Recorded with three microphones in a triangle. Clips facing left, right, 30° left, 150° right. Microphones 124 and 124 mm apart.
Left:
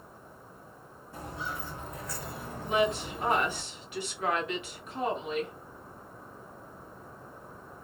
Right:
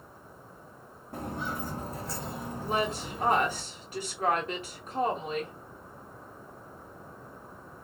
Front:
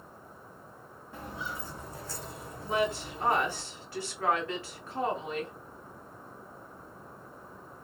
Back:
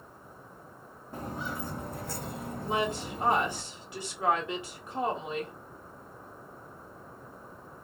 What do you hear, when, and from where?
1.1 s footsteps: 105° right, 0.9 m; by 3.6 s 170° left, 1.2 m
2.6 s a woman speaking: 90° right, 1.3 m